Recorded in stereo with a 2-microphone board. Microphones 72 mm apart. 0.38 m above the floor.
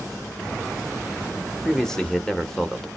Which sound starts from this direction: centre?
A man speaking, at 1.6 s.